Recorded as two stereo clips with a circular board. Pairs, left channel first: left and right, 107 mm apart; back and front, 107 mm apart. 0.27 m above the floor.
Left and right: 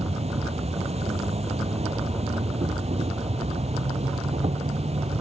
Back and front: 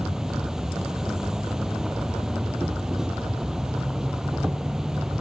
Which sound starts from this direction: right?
An insect, at 0.0 s.